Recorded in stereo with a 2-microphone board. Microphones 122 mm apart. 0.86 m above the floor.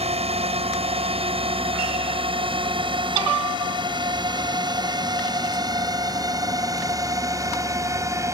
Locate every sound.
0.0 s a drone: 55° right (ahead or behind); by 8.3 s 25° right (ahead or behind)